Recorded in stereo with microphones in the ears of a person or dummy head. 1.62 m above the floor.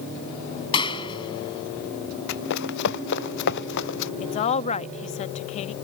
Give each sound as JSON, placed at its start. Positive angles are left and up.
{"t": 0.7, "sound": "a clap", "side_deg": 25}
{"t": 2.3, "sound": "running footsteps", "side_deg": 60}
{"t": 4.2, "sound": "a woman speaking", "side_deg": 40}